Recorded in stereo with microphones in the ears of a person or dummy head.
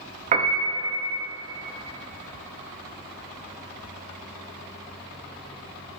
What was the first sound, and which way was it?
A piano, 40° right (ahead or behind).